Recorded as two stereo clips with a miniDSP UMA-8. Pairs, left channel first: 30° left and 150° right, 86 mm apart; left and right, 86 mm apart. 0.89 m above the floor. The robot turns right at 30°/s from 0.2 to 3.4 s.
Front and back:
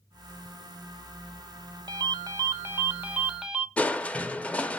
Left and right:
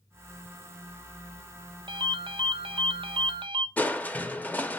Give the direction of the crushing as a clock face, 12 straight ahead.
10 o'clock.